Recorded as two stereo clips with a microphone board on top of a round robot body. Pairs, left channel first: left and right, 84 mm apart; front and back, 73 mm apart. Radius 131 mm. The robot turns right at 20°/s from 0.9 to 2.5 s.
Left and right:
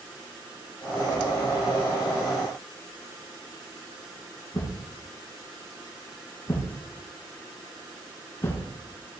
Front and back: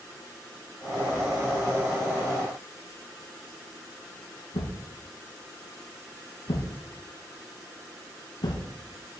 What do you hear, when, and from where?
4.5 s a thud: 30° left, 3 m